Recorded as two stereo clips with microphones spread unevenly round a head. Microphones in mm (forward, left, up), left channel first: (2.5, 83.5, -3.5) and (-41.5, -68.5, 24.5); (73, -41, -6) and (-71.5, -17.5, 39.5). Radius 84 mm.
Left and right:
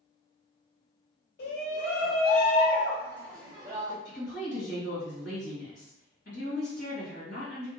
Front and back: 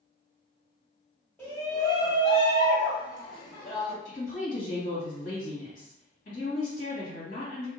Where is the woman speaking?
40° left, 1.5 m.